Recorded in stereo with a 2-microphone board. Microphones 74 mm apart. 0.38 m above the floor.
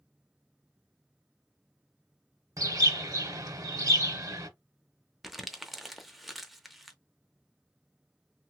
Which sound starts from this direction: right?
A bird, at 2.6 s.